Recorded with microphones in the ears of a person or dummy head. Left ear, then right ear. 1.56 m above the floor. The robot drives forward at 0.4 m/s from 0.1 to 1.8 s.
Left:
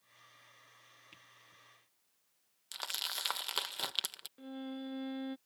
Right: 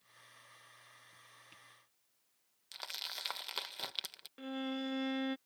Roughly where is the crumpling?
Centre.